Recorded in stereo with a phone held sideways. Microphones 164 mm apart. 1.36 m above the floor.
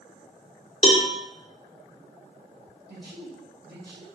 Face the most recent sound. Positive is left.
turn(degrees=-80)